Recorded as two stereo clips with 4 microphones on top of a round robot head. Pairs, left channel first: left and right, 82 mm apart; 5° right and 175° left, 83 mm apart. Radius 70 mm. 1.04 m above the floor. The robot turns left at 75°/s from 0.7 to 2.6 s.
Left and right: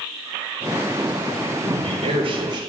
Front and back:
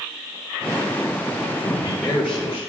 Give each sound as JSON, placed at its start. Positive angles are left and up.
{"t": 1.6, "sound": "a man speaking", "azimuth_deg": -60, "distance_m": 4.0}